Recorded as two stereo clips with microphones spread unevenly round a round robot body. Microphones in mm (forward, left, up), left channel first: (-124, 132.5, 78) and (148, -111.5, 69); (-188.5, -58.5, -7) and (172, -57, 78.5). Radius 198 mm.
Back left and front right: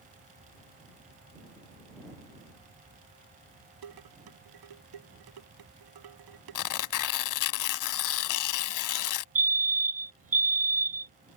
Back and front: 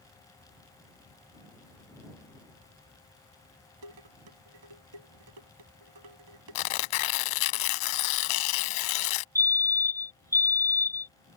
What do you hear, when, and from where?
3.8 s dishes clattering: 10° right
6.5 s tearing paper: straight behind
9.3 s a fire alarm: 95° right